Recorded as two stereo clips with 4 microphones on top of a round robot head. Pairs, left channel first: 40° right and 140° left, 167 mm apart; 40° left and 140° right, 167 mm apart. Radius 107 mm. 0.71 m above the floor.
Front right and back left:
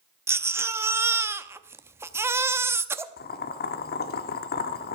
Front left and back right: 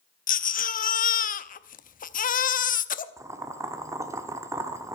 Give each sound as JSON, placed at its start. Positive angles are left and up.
{"t": 0.3, "sound": "a baby crying", "azimuth_deg": 70, "distance_m": 0.7}
{"t": 3.2, "sound": "boiling", "azimuth_deg": -70, "distance_m": 0.9}